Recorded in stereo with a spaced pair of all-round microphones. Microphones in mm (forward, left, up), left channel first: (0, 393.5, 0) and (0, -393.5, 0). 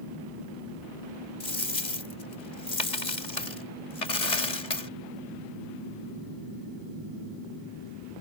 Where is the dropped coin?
65° left (ahead or behind).